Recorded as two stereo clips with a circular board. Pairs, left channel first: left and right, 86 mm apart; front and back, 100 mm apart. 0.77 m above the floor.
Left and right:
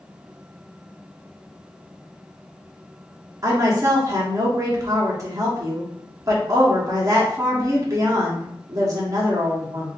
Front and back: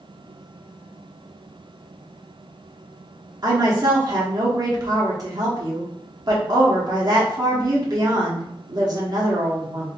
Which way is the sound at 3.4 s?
135° right.